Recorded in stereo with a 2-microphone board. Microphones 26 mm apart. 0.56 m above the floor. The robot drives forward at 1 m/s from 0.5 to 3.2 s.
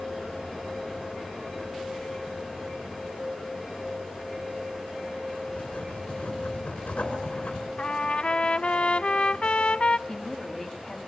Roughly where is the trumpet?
Left.